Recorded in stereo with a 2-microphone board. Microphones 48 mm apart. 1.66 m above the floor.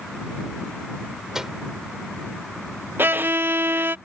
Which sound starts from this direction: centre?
A microwave, at 1.3 s.